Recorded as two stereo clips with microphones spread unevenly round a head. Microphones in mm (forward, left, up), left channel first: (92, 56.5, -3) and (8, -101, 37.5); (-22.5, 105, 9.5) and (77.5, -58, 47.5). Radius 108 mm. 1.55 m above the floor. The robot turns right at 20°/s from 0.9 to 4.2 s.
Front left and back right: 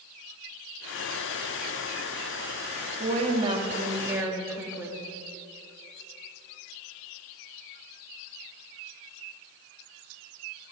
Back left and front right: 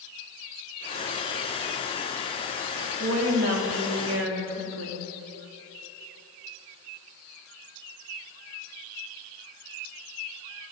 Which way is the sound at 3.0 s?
65° right.